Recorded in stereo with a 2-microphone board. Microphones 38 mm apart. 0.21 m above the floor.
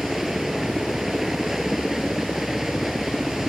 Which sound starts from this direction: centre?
A helicopter, at 0.0 s.